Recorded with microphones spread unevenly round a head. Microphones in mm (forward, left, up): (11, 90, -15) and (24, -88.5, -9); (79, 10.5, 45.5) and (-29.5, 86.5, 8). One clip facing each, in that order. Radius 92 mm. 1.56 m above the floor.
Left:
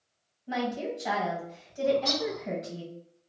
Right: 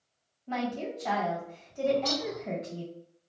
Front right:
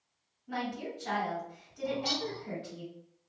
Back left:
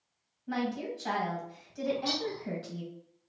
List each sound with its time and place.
0.5 s a woman speaking: 175° left, 1.6 m
1.8 s a bird: 20° right, 1.1 m